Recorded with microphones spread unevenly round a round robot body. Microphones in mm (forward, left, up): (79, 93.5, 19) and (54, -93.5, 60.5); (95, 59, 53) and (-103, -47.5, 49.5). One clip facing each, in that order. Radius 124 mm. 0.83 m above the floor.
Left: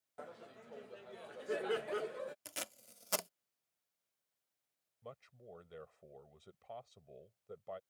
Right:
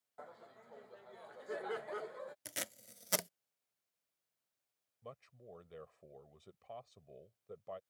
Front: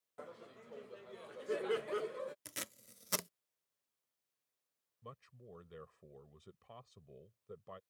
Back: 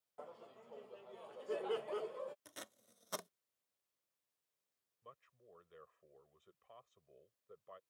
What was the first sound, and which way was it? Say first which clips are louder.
Laughter: left 3 dB, front 2 dB; 80° left.